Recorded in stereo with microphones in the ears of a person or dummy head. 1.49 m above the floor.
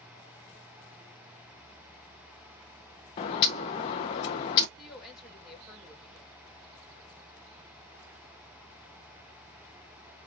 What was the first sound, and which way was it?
A bird, 25° left (ahead or behind).